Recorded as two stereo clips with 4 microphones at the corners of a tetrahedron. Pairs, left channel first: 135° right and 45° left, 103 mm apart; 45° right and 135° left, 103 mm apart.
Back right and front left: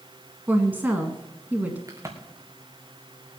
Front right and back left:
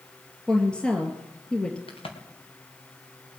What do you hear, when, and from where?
0.5 s a woman speaking: 15° left, 1.6 m
1.9 s a crack: 15° right, 3 m